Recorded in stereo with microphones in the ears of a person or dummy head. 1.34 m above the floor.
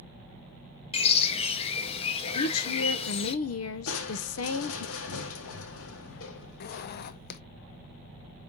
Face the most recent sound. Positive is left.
turn(degrees=55)  # may be behind; listen again after turning